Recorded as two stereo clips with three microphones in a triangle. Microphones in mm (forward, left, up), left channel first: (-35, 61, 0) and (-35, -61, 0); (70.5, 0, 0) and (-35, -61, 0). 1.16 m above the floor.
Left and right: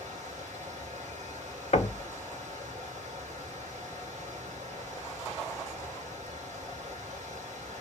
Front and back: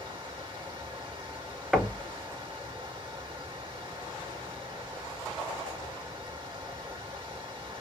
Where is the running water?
95° right, 1.9 m.